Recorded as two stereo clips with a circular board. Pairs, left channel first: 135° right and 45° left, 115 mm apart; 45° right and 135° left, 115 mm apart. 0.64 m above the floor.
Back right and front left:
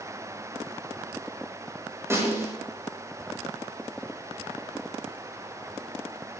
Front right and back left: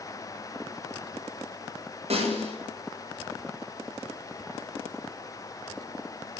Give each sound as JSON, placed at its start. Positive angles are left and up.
{"t": 2.1, "sound": "a snare drum", "azimuth_deg": 110, "distance_m": 9.0}